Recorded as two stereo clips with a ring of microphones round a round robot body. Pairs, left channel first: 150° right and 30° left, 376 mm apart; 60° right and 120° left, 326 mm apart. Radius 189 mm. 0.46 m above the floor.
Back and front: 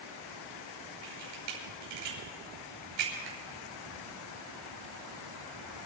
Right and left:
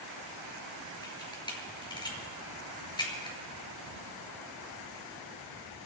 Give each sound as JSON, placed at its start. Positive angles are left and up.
{"t": 1.0, "sound": "a camera shutter", "azimuth_deg": 15, "distance_m": 5.5}